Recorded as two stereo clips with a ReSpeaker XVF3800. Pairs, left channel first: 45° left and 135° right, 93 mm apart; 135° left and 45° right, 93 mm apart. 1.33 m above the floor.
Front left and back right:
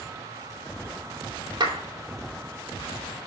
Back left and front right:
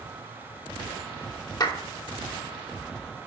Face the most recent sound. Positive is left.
turn(degrees=-175)